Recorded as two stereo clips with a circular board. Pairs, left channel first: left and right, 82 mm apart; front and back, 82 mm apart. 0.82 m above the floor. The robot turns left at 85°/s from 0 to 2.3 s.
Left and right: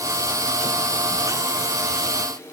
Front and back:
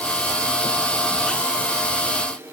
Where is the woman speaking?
No woman speaking in this recording.